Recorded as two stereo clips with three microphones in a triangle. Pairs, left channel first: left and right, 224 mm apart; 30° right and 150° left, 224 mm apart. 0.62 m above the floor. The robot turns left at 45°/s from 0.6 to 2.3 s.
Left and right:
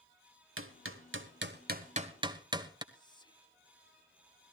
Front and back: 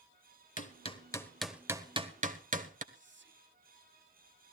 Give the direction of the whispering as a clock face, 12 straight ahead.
7 o'clock.